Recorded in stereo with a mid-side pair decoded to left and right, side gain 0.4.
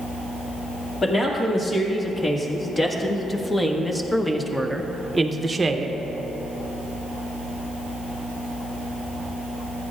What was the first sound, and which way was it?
A man speaking, 40° left.